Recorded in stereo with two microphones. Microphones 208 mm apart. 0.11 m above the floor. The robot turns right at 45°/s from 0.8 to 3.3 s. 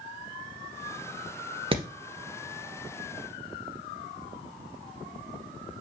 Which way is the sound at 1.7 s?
25° right (ahead or behind).